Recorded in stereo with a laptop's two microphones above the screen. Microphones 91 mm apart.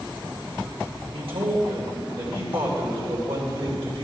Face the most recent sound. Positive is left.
turn(degrees=-85)